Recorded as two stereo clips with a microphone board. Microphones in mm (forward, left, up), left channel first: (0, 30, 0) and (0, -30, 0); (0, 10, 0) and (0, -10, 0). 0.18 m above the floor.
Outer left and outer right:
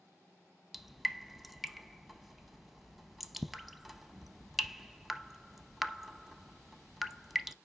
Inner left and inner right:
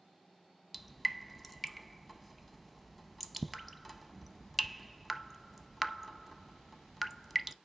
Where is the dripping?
Centre (ahead or behind), 0.6 m.